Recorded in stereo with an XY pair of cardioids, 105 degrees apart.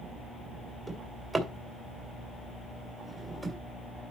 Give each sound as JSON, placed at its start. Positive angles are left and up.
{"t": 0.9, "sound": "a drawer", "azimuth_deg": -30, "distance_m": 2.5}